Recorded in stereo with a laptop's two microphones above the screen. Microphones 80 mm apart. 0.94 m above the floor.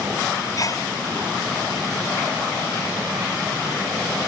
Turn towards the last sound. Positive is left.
turn(degrees=50)  # may be behind; listen again after turning